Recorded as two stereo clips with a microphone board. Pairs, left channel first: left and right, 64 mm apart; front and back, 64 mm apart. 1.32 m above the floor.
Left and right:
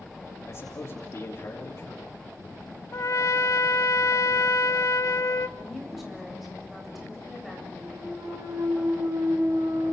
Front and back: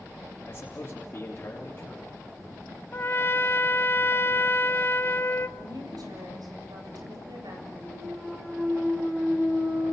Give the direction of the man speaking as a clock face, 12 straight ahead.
10 o'clock.